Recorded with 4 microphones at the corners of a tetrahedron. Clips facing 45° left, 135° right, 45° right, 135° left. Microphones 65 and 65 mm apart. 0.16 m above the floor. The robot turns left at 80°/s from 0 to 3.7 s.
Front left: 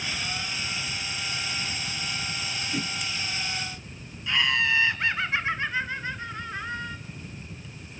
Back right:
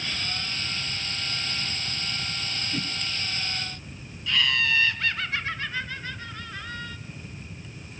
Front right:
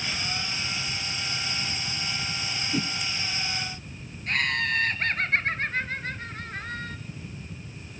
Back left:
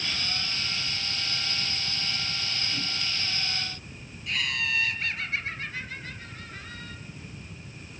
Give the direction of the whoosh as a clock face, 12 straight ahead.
1 o'clock.